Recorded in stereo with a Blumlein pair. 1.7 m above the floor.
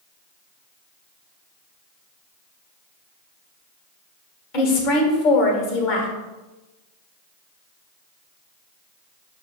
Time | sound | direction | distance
4.5 | a woman speaking | 40° left | 1.2 m